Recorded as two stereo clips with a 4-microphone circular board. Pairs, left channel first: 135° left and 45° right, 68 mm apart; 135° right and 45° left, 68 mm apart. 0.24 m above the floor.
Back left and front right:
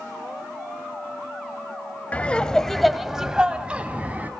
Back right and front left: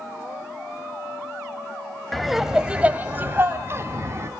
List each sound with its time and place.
2.1 s laughter: 140° left, 0.9 m; by 4.3 s 15° left, 1.5 m